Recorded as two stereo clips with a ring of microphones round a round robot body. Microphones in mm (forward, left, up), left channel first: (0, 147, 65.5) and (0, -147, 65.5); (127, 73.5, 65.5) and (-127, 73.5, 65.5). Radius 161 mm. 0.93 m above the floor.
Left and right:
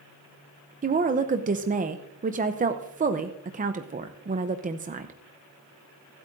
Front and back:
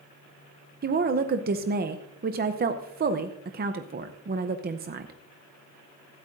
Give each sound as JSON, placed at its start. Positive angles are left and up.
{"t": 0.8, "sound": "a woman speaking", "azimuth_deg": -145, "distance_m": 0.6}